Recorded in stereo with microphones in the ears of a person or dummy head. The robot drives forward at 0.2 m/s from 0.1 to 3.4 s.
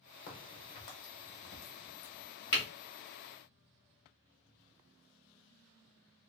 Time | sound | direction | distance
0.3 | a crack | 25° left (ahead or behind) | 1.1 m